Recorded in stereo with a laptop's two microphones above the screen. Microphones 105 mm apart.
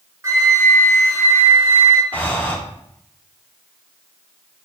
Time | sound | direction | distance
0.2 | a flute | 25° right (ahead or behind) | 0.6 m
2.1 | breathing | 15° left (ahead or behind) | 0.9 m